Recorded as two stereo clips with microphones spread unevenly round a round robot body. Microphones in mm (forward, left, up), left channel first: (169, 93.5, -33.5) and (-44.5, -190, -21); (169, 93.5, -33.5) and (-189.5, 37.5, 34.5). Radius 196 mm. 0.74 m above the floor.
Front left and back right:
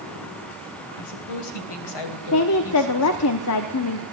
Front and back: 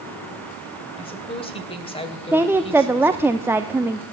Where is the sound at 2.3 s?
100° left, 1.0 m.